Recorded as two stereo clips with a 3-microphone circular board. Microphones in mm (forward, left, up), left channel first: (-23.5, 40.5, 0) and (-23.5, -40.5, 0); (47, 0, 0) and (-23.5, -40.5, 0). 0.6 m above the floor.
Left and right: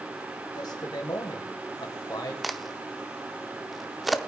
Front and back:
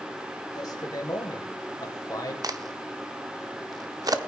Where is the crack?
Straight behind, 0.7 m.